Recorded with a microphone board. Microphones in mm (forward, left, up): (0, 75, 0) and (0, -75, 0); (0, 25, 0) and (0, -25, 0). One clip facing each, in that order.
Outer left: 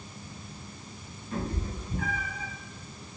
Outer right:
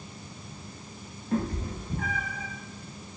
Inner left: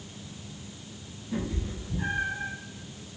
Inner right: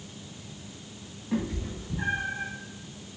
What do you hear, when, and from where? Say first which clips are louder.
1.3 s a cat meowing: outer right 5 dB, inner right 2 dB; 50° right (ahead or behind), 4 m; by 2.5 s 35° right (ahead or behind), 4.5 m